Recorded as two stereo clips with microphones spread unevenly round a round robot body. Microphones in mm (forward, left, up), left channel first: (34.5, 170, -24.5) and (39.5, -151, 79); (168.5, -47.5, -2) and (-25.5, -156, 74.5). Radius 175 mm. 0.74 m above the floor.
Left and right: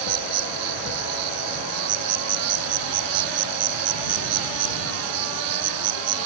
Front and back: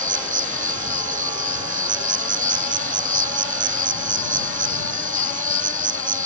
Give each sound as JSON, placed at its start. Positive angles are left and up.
{"t": 0.0, "sound": "an insect", "azimuth_deg": -100}